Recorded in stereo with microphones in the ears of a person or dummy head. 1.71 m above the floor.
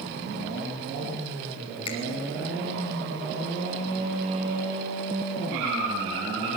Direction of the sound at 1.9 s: 30° left (ahead or behind).